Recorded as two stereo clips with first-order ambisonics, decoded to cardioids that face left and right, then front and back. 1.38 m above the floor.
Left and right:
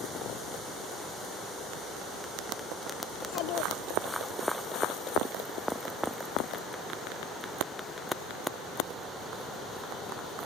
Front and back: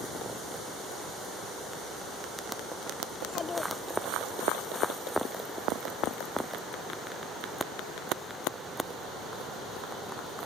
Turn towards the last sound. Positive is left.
turn(degrees=70)